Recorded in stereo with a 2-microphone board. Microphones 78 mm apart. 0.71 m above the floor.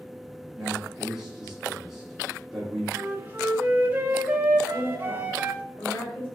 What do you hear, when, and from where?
0.6 s a man speaking: 5° right (ahead or behind), 1.7 m
2.9 s a flute: 25° right (ahead or behind), 0.9 m
4.7 s a woman speaking: 25° left (ahead or behind), 2.5 m